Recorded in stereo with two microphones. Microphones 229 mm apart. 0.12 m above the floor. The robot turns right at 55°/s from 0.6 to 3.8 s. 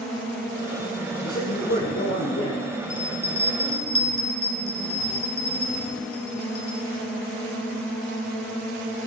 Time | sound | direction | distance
1.2 | a man speaking | 35° left | 3.5 m
2.9 | a bell | 20° right (ahead or behind) | 1.7 m